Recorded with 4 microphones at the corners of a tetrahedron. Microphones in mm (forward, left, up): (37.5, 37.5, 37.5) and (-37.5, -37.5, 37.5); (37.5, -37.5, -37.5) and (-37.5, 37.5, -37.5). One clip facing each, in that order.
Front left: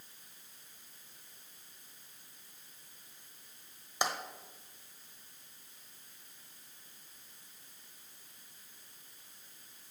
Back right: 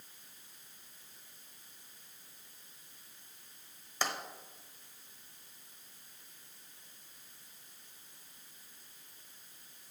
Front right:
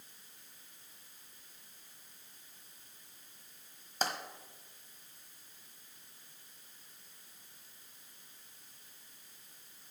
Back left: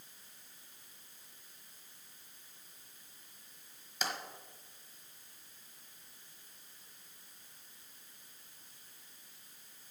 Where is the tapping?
20° right, 1.0 m.